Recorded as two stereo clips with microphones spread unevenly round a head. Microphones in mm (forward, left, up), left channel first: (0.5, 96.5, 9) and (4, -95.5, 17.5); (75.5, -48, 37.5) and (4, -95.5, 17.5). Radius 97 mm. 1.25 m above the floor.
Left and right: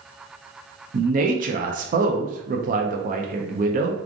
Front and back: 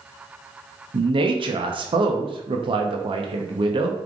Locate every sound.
0.9 s a man speaking: 140° right, 0.8 m